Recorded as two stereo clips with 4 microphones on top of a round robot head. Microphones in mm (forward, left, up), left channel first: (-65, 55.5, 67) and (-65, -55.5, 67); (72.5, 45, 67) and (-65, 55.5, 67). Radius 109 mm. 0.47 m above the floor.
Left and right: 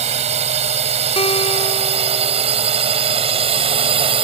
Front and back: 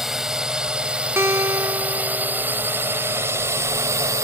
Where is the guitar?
105° left.